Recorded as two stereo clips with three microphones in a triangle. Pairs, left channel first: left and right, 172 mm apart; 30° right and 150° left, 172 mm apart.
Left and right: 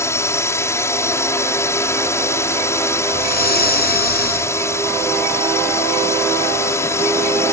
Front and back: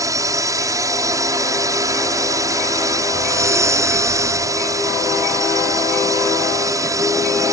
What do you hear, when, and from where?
0.0 s a drone: 130° left
3.1 s breathing: 80° left